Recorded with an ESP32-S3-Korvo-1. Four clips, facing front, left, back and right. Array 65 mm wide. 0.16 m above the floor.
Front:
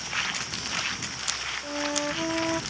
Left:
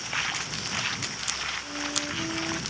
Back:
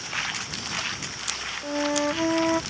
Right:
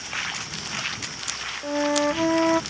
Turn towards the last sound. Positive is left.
turn(degrees=-110)